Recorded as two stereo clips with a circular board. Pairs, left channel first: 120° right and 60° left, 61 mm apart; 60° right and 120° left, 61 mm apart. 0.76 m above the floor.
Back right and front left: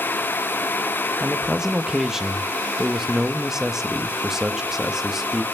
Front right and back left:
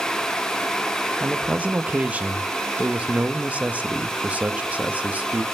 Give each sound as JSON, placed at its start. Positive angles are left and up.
{"t": 1.2, "sound": "a man speaking", "azimuth_deg": 130, "distance_m": 0.7}